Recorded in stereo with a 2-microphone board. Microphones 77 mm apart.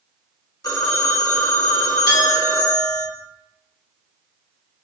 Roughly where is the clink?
Left.